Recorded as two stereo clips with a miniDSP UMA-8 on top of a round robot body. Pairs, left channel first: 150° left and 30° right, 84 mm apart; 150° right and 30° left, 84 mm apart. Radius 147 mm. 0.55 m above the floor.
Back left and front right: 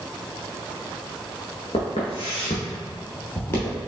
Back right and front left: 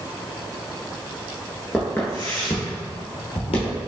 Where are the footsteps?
135° left, 0.7 m; by 3.8 s 145° right, 1.1 m.